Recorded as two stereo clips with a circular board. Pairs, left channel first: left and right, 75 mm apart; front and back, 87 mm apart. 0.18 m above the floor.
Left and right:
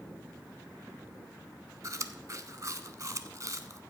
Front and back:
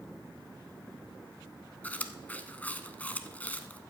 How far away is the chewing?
About 0.6 m.